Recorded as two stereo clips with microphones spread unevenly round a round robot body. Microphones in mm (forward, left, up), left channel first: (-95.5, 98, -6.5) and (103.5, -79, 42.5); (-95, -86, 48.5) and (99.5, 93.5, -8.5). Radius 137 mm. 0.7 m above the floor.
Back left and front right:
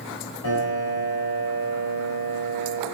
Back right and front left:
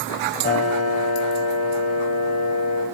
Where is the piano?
165° left, 3 m.